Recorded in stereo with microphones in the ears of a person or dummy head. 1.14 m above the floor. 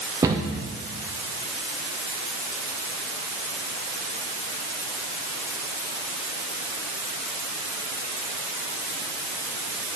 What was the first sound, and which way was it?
A cupboard door, 15° right (ahead or behind).